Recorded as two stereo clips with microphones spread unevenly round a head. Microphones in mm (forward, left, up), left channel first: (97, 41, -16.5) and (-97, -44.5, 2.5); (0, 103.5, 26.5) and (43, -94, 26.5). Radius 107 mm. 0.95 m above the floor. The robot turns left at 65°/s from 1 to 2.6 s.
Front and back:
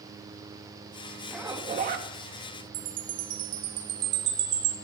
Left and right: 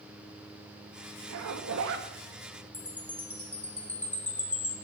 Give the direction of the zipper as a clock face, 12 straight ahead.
2 o'clock.